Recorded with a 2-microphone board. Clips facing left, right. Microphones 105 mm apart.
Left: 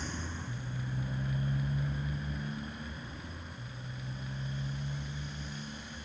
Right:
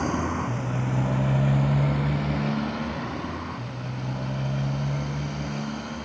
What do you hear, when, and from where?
0.0 s a motorcycle: 65° right (ahead or behind)